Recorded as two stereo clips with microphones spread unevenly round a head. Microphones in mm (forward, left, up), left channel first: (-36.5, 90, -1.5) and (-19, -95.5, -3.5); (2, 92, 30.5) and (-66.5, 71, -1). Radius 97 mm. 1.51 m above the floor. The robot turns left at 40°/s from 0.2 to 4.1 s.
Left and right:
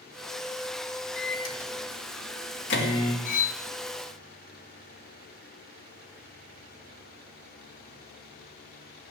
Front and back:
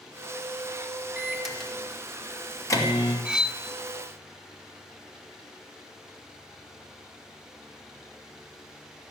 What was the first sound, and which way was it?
A microwave, 120° left.